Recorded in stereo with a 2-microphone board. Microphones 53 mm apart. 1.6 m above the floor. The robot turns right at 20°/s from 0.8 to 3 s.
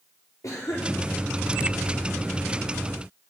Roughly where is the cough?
Left.